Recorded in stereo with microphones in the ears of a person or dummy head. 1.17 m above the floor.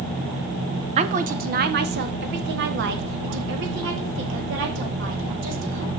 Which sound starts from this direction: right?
A woman speaking, at 1.0 s.